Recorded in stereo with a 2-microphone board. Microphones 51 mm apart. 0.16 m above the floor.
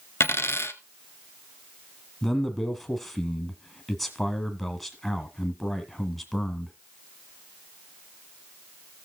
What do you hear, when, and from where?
0.2 s a dropped coin: 55° left (ahead or behind), 1.1 m
2.2 s a man speaking: centre (ahead or behind), 1.6 m